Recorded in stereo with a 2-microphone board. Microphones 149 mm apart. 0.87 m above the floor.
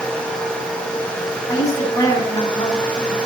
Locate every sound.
1.5 s a woman speaking: 20° left (ahead or behind), 9 m